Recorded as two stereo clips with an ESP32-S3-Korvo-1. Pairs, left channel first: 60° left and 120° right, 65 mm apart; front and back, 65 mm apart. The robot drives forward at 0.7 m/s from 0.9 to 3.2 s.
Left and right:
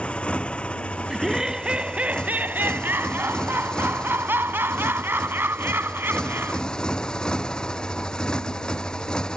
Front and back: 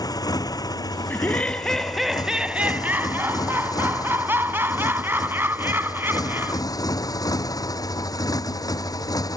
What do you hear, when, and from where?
0.0 s a motorcycle: 15° right
1.1 s laughter: 40° right; by 6.6 s 150° right